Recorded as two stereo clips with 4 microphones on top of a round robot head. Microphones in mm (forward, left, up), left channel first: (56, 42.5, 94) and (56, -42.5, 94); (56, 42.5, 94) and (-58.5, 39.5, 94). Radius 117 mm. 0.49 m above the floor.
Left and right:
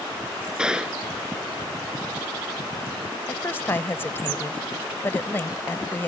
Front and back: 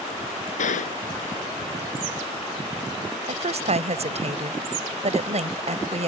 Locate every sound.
0.6 s a gunshot: 10° right
3.2 s a woman speaking: 160° left